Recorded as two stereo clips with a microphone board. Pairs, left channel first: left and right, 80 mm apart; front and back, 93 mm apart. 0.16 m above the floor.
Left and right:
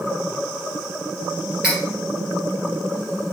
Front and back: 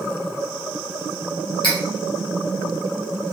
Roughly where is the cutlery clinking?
Ahead.